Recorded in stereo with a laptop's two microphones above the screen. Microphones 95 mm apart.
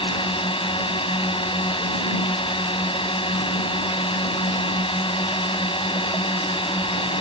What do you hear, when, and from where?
0.0 s a drone: 70° left (ahead or behind)